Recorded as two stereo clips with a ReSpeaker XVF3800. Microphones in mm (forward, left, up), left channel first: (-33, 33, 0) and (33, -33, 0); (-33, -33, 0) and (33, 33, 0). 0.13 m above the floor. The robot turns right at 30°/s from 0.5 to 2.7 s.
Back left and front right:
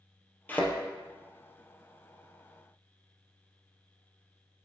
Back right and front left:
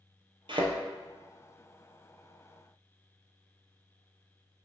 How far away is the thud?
About 1.5 m.